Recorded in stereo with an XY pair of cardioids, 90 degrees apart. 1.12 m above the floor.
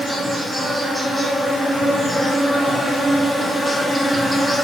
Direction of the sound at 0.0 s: 5° right.